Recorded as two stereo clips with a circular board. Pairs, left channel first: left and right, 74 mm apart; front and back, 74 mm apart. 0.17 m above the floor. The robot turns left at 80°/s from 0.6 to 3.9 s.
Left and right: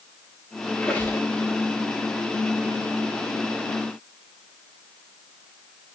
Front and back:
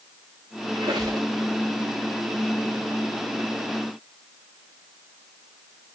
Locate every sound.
0.8 s a squeak: 175° left, 4 m; by 1.3 s 130° left, 4 m